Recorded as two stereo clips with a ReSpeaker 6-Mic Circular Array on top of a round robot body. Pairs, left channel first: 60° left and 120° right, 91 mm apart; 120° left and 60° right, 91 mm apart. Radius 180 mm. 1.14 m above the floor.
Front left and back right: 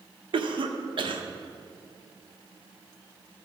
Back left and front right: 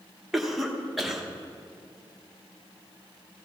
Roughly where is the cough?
Behind right.